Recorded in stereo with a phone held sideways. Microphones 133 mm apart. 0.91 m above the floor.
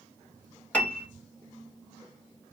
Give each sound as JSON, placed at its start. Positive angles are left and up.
{"t": 0.7, "sound": "a piano", "side_deg": 10, "distance_m": 1.2}